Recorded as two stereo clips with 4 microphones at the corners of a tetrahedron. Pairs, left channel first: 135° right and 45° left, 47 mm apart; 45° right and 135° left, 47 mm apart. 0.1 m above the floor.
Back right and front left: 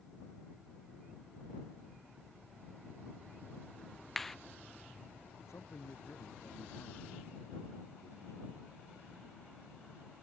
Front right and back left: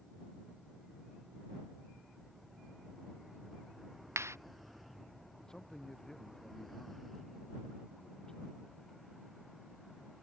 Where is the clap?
140° left.